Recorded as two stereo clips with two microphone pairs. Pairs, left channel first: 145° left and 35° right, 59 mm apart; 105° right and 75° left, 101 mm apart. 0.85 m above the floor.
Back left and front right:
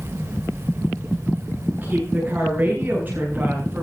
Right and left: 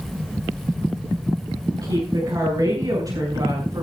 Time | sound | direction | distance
1.8 | a woman speaking | 20° left | 7 m